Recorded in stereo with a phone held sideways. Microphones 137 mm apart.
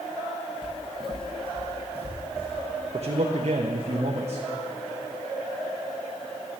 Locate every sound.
0.6 s footsteps: 40° left (ahead or behind), 1.7 m; by 2.6 s 50° left (ahead or behind), 3 m
2.9 s a man speaking: 55° right (ahead or behind), 0.8 m